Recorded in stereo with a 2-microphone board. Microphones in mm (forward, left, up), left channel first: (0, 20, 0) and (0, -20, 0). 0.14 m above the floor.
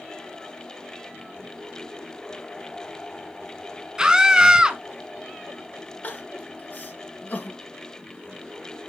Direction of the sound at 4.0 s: 15° right (ahead or behind).